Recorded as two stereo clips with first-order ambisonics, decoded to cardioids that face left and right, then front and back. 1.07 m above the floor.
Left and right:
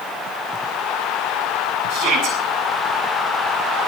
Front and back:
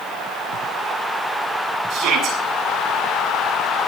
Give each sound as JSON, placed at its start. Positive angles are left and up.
{"t": 1.9, "sound": "a shout", "azimuth_deg": -125, "distance_m": 10.0}